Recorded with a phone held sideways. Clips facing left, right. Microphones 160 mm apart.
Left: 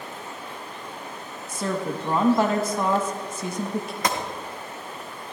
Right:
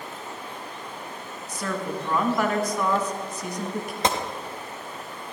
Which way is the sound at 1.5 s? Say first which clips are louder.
Left 2 dB; 30° left (ahead or behind).